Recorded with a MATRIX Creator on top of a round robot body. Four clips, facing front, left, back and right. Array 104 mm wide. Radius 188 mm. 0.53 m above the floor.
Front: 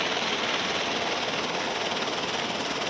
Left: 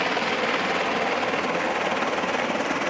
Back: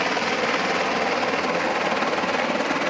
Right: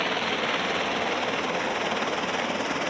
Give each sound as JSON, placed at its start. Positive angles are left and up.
{"t": 0.0, "sound": "a helicopter", "azimuth_deg": 155}